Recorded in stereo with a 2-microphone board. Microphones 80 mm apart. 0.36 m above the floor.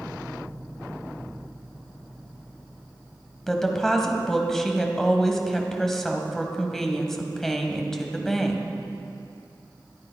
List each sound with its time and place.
3.5 s a woman speaking: 5° left (ahead or behind), 1.7 m